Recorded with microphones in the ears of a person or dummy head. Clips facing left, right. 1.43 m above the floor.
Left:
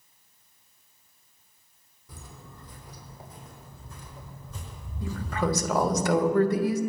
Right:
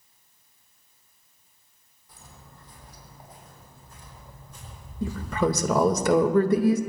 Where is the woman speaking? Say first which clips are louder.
Right 4 dB; 80° right, 1.7 m.